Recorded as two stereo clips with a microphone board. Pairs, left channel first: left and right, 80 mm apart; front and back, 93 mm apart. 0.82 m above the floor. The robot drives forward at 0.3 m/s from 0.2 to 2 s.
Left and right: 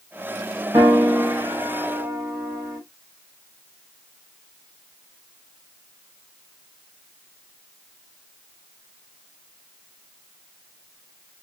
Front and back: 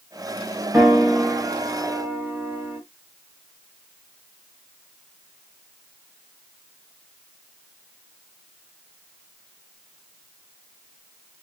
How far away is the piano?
About 1.5 m.